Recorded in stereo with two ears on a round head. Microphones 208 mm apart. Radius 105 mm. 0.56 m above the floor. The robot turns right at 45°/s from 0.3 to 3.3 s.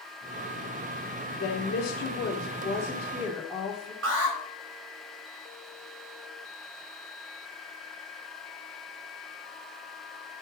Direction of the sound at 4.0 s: 65° right (ahead or behind).